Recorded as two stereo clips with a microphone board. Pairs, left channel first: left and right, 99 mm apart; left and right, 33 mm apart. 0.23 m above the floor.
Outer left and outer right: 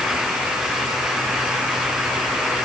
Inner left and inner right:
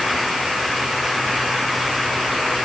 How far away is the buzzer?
No buzzer in this recording.